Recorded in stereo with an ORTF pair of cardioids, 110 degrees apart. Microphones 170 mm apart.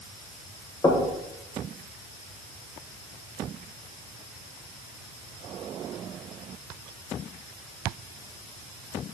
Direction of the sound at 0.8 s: 20° left.